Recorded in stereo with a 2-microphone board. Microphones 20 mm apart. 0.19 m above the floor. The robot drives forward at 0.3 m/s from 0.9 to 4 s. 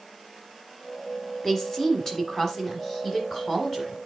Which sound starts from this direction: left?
A woman speaking, at 1.4 s.